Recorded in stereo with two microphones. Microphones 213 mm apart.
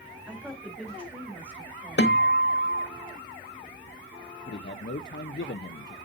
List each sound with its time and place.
0.3 s a woman speaking: 5° right (ahead or behind), 3 m
2.0 s a guitar: 55° left (ahead or behind), 1.1 m
4.5 s a man speaking: 55° left (ahead or behind), 0.5 m